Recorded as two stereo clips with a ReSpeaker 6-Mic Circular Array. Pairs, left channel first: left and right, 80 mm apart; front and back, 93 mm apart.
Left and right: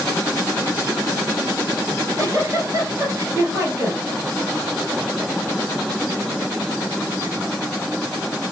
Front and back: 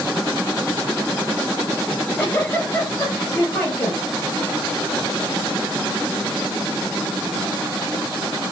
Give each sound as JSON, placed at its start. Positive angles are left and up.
{"t": 1.9, "sound": "a giggle", "azimuth_deg": -60, "distance_m": 2.5}